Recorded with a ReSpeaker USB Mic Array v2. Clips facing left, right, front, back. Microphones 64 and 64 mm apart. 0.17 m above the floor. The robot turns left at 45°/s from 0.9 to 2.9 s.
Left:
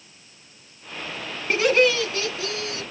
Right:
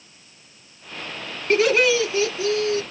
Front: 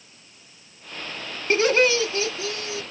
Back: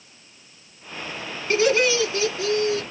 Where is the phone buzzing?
No phone buzzing in this recording.